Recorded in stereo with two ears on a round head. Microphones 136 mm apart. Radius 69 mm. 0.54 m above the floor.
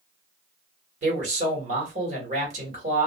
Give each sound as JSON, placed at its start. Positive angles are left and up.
{"t": 1.0, "sound": "a man speaking", "side_deg": -50, "distance_m": 1.6}